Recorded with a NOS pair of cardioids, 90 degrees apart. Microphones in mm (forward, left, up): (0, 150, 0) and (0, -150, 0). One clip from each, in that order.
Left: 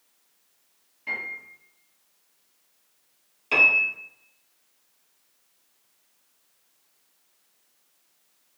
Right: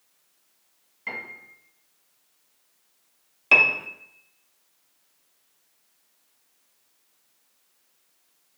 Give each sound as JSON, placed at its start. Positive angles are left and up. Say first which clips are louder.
{"t": 1.1, "sound": "a piano", "louder": "left 3 dB", "azimuth_deg": -50, "distance_m": 1.9}
{"t": 3.5, "sound": "a piano", "louder": "even", "azimuth_deg": -45, "distance_m": 0.7}